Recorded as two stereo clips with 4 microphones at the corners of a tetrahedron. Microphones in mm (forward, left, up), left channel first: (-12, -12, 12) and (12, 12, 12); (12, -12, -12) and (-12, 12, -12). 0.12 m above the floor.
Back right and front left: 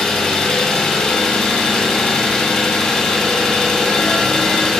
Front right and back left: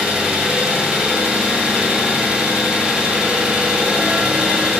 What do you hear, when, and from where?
0.0 s an engine running: 175° left, 1.2 m